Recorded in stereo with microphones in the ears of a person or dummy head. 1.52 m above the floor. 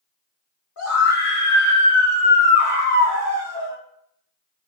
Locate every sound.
0.8 s a scream: 80° left, 1.3 m; by 3.8 s 25° right (ahead or behind), 0.9 m